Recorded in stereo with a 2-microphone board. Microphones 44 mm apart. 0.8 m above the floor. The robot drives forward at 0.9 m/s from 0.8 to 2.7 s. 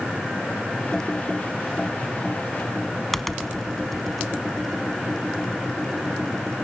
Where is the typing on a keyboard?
10° left (ahead or behind), 0.6 m; by 6.7 s 5° left (ahead or behind), 1.4 m.